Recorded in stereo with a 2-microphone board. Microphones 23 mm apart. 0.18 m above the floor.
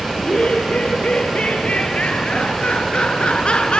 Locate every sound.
0.1 s laughter: 70° left (ahead or behind), 5.5 m; by 3.8 s 55° left (ahead or behind), 2.5 m